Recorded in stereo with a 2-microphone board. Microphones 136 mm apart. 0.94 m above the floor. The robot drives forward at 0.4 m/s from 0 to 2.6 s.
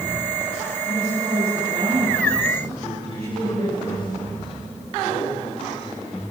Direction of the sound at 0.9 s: 60° right (ahead or behind).